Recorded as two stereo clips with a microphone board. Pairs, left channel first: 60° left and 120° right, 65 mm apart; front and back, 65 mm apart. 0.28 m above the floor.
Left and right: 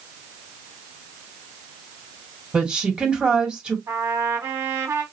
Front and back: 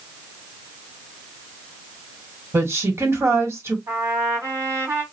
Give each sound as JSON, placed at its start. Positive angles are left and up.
{"t": 2.5, "sound": "a woman speaking", "azimuth_deg": 170, "distance_m": 1.8}
{"t": 3.9, "sound": "a trumpet", "azimuth_deg": -145, "distance_m": 2.0}